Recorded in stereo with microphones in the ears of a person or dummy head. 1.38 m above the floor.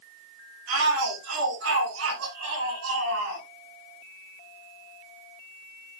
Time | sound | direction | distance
0.7 | a shout | 85° right | 8 m